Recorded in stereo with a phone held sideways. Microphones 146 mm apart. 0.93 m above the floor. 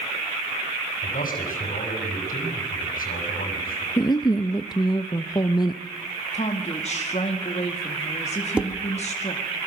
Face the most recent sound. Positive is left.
turn(degrees=-10)  # may be behind; listen again after turning